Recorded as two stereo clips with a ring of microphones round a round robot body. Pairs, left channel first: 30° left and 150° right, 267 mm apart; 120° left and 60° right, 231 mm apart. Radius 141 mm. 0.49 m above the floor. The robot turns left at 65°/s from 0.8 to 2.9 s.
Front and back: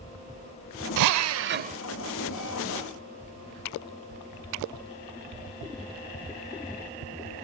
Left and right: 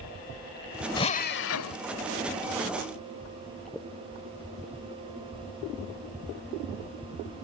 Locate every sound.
1.0 s a drill: 165° right; by 1.8 s 140° left